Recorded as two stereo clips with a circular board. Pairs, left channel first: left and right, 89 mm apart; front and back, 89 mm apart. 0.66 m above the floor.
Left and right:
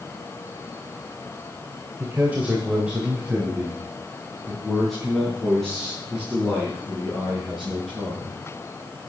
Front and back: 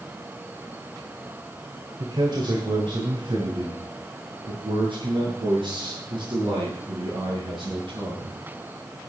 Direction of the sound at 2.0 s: 150° right.